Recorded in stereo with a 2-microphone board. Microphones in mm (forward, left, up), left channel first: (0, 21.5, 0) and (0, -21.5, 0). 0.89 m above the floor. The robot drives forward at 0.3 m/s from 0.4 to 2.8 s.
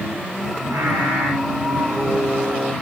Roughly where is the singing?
Right.